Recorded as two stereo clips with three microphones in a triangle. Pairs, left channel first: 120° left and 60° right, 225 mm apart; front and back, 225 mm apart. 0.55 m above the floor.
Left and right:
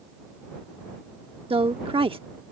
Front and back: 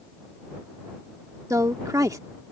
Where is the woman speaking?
110° right.